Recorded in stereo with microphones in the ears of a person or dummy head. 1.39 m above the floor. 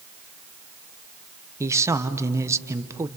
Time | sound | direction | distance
1.6 | a man speaking | 15° right (ahead or behind) | 1.1 m